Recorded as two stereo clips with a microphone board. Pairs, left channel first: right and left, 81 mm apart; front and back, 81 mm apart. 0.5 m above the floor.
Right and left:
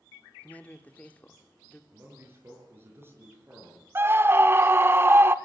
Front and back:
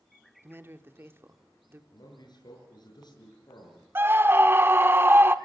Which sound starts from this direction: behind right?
A man speaking, at 0.4 s.